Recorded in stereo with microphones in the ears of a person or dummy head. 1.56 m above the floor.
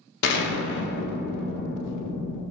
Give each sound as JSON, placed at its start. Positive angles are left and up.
{"t": 0.2, "sound": "an explosion", "side_deg": 60, "distance_m": 0.6}